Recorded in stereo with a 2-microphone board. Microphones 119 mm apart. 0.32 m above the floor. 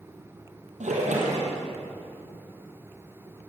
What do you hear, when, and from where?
0.8 s a splash: 85° right, 6 m